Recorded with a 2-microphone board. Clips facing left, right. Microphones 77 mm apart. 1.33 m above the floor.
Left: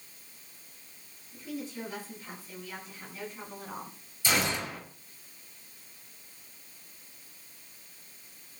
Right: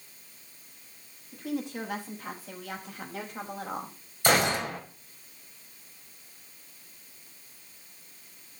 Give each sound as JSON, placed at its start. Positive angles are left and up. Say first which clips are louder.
{"t": 1.3, "sound": "a woman speaking", "louder": "right 5 dB", "side_deg": -70, "distance_m": 8.0}
{"t": 4.2, "sound": "a gunshot", "louder": "right 6 dB", "side_deg": -60, "distance_m": 6.0}